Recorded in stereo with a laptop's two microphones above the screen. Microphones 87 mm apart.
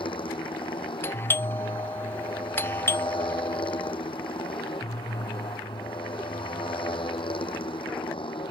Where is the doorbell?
25° left (ahead or behind).